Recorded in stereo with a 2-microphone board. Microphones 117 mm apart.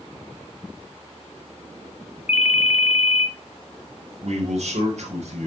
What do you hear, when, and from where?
2.3 s a ringtone: 75° left (ahead or behind), 1.1 m
4.2 s a man speaking: 70° right (ahead or behind), 4 m